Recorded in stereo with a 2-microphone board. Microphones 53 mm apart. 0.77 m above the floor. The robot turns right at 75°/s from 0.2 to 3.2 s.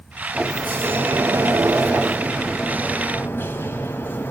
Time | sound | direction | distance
0.3 | a sliding door | 170° right | 1.5 m